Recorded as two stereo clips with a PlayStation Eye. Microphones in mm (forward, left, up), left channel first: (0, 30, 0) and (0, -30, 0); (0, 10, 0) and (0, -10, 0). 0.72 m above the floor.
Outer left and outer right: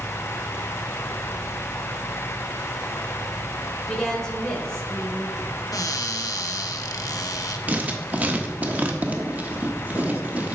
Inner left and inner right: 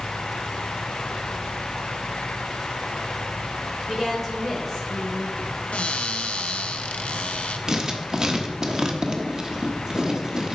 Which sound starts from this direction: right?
Writing, at 7.7 s.